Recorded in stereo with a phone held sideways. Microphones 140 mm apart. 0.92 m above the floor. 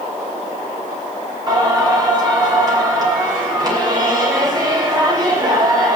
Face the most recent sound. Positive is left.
turn(degrees=-30)  # may be behind; listen again after turning